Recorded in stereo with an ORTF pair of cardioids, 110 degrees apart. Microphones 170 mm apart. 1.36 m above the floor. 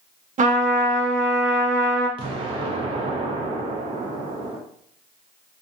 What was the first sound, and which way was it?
A trumpet, 50° right.